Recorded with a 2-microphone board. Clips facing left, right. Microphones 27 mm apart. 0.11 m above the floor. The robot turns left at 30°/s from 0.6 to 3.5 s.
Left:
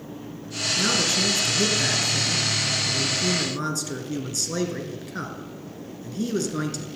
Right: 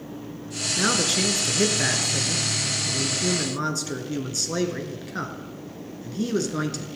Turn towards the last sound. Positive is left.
turn(degrees=-10)  # may be behind; listen again after turning